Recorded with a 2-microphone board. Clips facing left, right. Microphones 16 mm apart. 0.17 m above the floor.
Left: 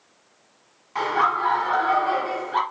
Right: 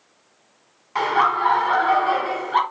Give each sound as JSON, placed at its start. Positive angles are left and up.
{"t": 0.9, "sound": "laughter", "side_deg": -25, "distance_m": 1.1}